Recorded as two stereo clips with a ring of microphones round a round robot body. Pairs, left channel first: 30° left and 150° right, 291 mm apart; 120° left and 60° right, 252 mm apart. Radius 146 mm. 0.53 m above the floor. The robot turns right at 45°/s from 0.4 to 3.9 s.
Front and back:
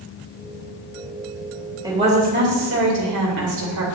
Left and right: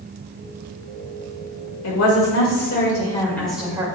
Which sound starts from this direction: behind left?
A woman speaking, at 1.8 s.